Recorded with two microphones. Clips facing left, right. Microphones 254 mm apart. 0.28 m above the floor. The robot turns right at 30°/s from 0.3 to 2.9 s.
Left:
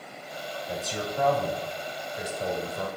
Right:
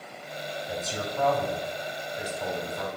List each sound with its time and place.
0.7 s a man speaking: 5° right, 1.3 m; by 2.9 s 60° left, 1.3 m